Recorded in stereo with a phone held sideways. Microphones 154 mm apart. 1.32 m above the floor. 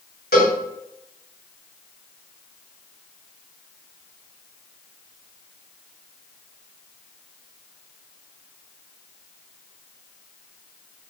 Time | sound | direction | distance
0.3 | a cowbell | 80° left | 3.5 m